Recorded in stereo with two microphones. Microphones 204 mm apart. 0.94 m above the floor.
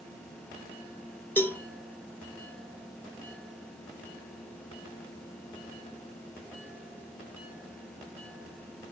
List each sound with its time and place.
1.4 s a cowbell: 10° left (ahead or behind), 1.3 m